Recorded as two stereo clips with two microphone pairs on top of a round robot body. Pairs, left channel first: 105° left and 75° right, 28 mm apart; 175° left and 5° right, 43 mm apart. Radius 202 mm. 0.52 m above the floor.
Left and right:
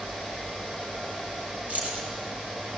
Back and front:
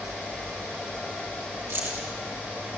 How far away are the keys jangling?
About 5 m.